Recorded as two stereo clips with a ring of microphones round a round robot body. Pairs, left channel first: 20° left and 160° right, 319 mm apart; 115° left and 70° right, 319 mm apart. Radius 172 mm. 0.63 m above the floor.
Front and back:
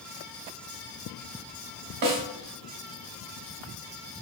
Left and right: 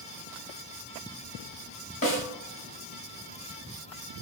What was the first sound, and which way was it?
A snare drum, straight behind.